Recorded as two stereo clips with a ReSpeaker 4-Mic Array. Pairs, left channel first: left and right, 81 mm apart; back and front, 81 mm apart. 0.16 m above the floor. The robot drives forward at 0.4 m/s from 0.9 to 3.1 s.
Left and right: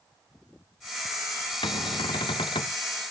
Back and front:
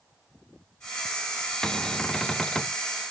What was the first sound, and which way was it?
A cupboard door, 100° left.